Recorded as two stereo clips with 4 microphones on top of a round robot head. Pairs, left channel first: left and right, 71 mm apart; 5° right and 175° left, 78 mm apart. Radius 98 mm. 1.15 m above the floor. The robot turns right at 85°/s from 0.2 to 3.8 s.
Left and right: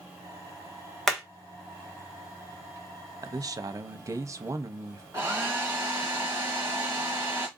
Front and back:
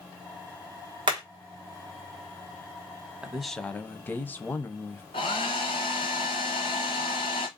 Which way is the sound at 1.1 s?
175° left.